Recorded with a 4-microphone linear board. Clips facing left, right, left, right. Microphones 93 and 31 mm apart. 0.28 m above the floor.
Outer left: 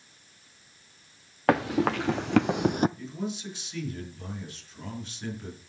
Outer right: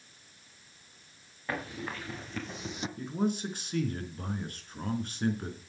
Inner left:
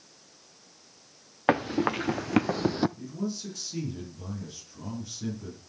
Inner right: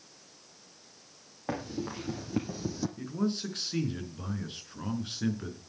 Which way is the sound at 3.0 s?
50° right (ahead or behind).